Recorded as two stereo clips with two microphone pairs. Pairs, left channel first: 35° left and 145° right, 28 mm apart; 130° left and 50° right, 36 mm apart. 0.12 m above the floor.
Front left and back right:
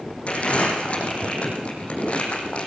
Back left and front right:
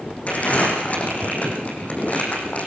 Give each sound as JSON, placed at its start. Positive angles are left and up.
{"t": 0.3, "sound": "crumpling", "azimuth_deg": 80, "distance_m": 6.5}